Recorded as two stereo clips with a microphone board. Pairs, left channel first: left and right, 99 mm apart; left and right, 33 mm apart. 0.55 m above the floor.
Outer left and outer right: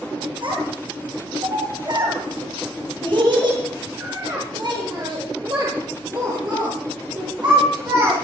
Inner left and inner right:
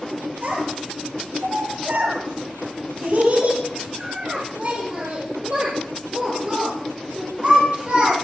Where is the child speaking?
50° right (ahead or behind), 9 m; by 8.1 s 30° right (ahead or behind), 12 m.